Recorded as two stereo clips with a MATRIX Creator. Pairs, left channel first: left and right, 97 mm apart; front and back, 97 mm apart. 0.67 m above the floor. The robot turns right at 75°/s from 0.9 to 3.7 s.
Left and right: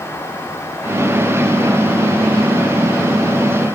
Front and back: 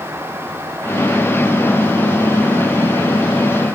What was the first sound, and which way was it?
Only background noise.